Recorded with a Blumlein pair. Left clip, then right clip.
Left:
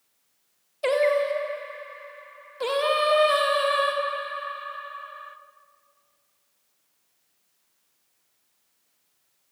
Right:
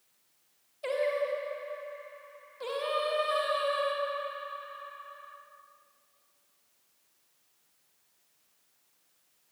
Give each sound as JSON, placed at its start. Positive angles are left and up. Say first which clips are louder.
{"t": 0.8, "sound": "singing", "louder": "left 8 dB", "azimuth_deg": 60, "distance_m": 1.5}